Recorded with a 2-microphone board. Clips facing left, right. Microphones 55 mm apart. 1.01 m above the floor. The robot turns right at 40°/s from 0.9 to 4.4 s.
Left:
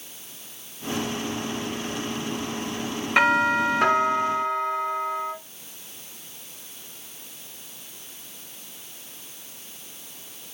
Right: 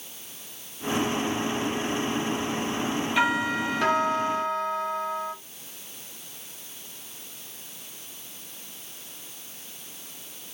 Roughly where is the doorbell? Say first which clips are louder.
Left 7 dB; behind left.